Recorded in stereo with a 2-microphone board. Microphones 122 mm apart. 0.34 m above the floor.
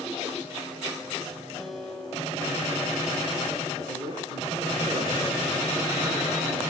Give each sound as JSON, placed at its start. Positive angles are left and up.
{"t": 1.6, "sound": "a guitar", "side_deg": -5, "distance_m": 8.5}
{"t": 3.9, "sound": "a man speaking", "side_deg": -80, "distance_m": 7.0}